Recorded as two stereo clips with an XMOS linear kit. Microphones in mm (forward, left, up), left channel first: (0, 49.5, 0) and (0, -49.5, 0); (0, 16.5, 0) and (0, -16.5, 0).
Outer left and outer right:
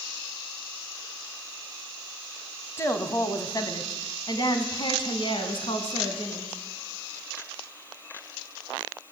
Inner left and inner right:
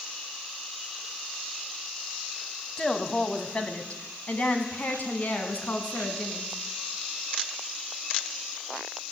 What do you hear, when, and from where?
2.8 s a woman speaking: 25° left (ahead or behind), 2 m; by 6.5 s 65° left (ahead or behind), 3.5 m